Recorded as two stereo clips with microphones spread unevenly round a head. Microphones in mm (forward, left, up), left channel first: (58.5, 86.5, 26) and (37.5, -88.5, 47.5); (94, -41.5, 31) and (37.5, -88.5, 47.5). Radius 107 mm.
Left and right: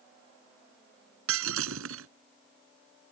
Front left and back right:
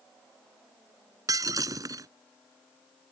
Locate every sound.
1.3 s breaking glass: 105° right